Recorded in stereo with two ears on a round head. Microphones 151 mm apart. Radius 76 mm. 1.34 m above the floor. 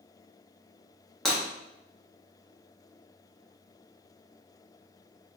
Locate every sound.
1.2 s breaking glass: 5° left (ahead or behind), 1.0 m